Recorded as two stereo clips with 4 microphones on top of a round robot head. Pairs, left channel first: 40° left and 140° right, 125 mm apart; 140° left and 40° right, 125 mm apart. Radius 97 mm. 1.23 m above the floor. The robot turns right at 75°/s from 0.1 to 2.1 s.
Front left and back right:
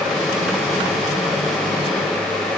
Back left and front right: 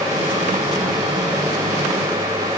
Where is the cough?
I don't hear a cough.